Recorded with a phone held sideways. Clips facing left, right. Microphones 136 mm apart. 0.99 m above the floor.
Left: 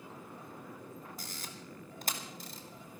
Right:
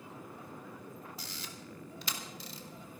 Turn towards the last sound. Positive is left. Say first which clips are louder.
# even
turn(degrees=45)  # may be behind; listen again after turning